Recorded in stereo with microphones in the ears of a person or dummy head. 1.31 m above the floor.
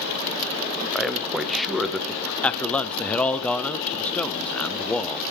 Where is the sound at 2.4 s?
5° left (ahead or behind), 0.5 m.